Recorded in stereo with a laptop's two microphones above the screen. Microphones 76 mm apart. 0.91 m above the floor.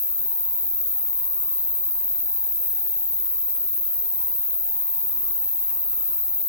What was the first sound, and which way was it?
An insect, 5° left (ahead or behind).